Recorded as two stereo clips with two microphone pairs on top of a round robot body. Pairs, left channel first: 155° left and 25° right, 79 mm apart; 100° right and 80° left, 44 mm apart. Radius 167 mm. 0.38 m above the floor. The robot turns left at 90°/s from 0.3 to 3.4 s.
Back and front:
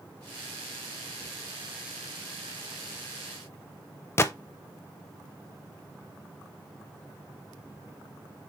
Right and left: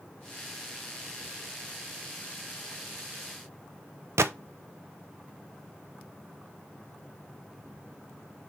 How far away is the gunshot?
About 0.6 m.